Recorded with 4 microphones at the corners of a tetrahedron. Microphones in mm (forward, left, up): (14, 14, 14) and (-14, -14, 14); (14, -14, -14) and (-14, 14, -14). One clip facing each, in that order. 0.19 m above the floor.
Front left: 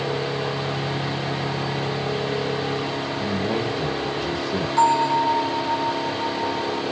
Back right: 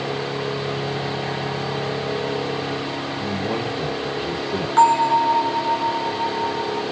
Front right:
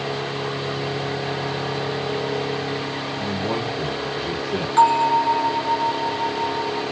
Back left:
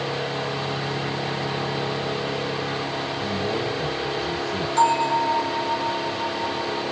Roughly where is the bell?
Right.